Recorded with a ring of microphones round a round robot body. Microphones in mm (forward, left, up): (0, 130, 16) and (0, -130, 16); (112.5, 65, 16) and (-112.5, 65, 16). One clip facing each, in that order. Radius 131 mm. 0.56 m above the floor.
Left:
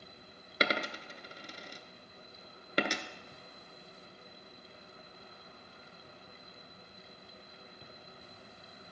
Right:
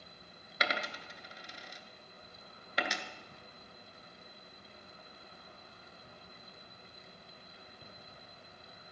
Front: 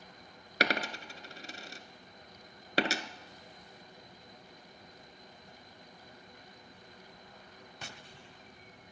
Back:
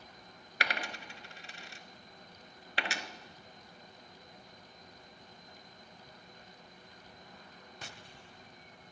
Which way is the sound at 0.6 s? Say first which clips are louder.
Left 5 dB, front 8 dB; 40° left.